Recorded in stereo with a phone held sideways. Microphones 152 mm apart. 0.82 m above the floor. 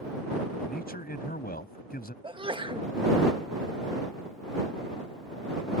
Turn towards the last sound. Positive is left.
turn(degrees=-35)  # may be behind; listen again after turning